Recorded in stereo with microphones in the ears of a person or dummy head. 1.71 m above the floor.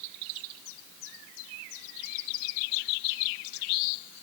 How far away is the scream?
I don't hear a scream.